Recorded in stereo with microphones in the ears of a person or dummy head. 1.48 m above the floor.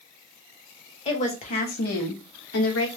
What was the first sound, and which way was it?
A woman speaking, 35° left (ahead or behind).